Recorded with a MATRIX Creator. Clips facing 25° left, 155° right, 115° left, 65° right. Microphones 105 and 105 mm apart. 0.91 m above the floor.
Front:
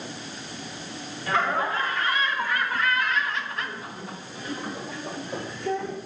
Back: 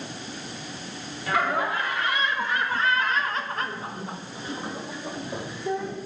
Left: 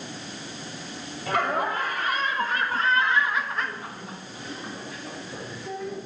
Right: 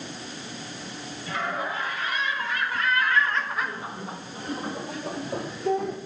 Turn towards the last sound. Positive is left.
turn(degrees=-80)